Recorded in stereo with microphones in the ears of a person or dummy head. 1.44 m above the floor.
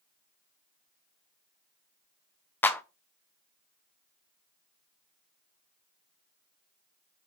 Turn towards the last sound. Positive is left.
turn(degrees=10)  # may be behind; listen again after turning